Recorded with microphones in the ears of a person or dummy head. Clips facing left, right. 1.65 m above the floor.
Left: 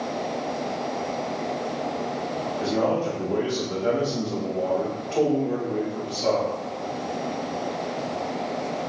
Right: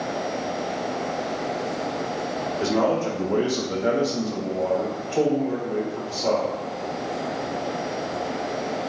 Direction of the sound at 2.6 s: 80° right.